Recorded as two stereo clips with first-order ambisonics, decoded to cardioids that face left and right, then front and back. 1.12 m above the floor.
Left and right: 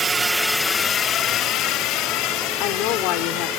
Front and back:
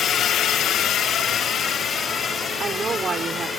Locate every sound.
0.0 s a drone: 35° right; by 3.6 s 70° left
2.6 s a woman speaking: 110° left